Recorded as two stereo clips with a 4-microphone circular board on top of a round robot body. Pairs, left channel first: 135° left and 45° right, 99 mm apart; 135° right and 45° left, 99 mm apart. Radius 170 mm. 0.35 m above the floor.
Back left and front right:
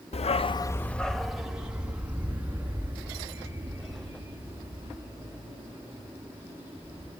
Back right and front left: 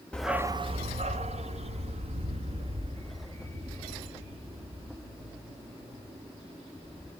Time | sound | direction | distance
0.1 | a dog barking | 145° left | 0.7 m